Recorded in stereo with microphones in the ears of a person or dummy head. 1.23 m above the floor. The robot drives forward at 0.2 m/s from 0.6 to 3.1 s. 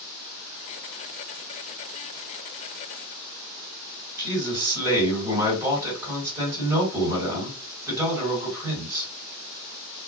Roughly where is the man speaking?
Centre.